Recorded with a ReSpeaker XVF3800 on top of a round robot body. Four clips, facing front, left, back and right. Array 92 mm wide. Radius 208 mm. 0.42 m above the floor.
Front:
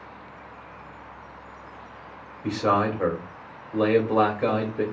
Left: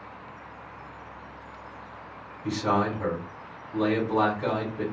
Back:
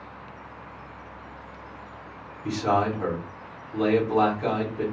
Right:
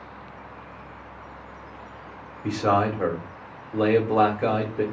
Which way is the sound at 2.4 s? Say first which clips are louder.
Right 3 dB, front 1 dB; 45° right.